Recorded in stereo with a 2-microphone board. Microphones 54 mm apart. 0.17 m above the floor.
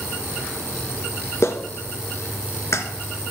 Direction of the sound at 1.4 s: 55° left (ahead or behind).